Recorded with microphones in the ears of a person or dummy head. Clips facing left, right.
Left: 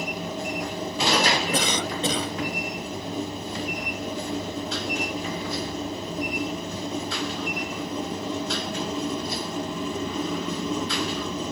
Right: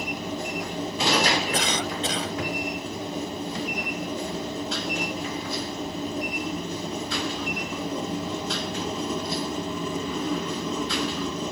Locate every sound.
1.5 s a cough: 85° left